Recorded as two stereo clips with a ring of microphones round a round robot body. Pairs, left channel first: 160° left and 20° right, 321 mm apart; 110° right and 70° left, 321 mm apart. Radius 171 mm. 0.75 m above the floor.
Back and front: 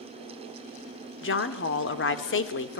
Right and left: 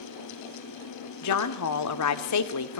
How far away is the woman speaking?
About 2 m.